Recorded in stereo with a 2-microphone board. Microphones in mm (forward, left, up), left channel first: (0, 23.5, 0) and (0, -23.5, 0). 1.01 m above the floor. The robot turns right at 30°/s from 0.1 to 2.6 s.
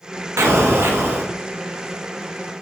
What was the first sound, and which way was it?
An explosion, 75° right (ahead or behind).